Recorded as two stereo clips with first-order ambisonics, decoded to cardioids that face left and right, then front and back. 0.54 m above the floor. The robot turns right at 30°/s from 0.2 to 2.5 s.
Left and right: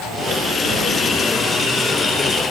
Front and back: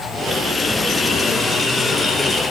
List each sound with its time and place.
Only background noise.